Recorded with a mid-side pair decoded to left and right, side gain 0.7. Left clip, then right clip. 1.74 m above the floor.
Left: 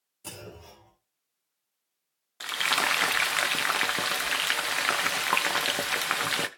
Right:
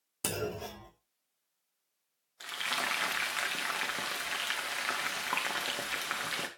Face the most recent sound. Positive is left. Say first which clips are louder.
# left 8 dB
turn(degrees=35)